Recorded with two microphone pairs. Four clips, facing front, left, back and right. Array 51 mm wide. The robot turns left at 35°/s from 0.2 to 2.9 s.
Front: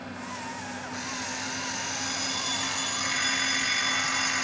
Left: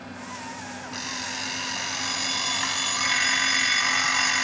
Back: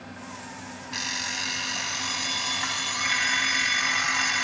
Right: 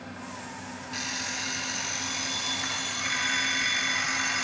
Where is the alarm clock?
175° left, 1.6 m; by 4.4 s 105° left, 1.6 m.